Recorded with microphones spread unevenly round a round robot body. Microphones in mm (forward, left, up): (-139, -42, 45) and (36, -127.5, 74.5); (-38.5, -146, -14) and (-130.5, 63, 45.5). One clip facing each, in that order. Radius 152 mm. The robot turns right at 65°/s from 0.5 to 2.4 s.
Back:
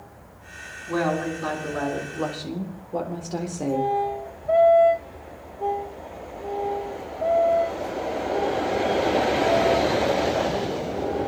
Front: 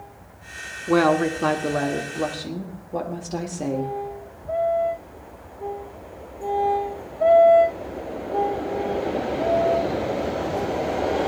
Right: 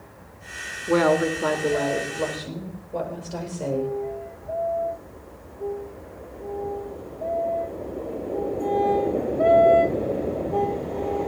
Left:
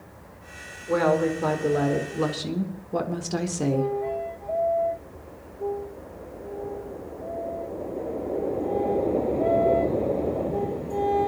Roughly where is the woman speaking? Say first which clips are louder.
Front 6 dB, right 2 dB; ahead right.